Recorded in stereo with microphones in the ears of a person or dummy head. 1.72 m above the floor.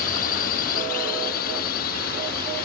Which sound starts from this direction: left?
A drone, at 0.0 s.